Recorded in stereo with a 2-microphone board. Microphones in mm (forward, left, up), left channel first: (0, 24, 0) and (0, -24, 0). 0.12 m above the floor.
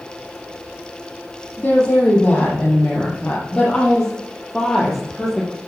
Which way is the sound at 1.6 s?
25° left (ahead or behind).